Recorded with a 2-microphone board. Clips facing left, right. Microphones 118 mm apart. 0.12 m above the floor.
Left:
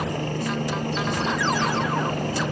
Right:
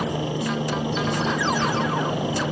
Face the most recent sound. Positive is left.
turn(degrees=-10)  # may be behind; listen again after turning